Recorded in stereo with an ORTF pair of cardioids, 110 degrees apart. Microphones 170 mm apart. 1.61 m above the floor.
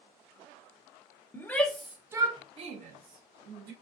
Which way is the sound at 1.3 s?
15° left.